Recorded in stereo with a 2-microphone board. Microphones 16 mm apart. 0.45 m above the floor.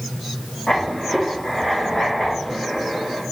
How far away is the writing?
About 5 m.